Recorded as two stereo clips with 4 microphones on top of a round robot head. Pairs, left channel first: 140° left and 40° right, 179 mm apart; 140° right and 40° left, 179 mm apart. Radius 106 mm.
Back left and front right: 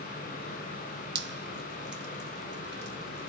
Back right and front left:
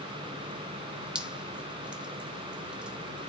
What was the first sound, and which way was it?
Dripping, 45° right.